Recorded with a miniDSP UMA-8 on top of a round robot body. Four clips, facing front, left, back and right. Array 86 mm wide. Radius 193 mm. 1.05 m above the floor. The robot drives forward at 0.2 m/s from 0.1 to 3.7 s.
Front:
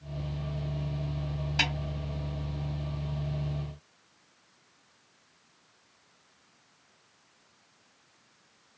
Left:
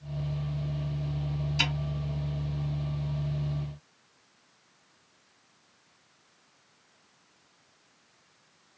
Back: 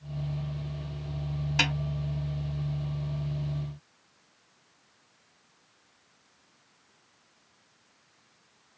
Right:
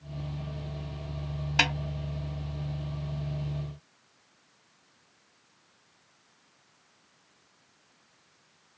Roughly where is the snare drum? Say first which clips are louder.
Right 6 dB, back 2 dB; right.